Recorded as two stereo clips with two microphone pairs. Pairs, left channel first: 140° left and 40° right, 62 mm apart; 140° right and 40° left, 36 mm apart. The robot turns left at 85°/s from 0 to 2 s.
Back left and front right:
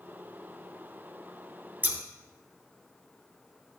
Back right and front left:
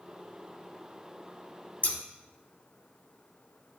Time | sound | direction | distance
1.8 | scissors | 95° right | 1.0 m